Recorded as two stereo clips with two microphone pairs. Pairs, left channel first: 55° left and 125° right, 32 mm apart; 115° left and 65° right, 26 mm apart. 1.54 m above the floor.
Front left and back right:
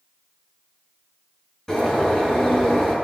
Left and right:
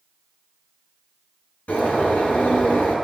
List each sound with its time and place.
1.7 s a bird: 125° left, 7 m